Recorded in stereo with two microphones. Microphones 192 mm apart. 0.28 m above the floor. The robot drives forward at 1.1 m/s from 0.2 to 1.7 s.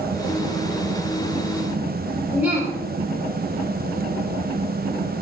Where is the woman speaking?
10° right (ahead or behind), 6.5 m.